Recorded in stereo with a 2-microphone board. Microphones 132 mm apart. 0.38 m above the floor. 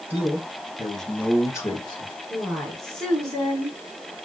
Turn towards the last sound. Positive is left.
turn(degrees=5)  # may be behind; listen again after turning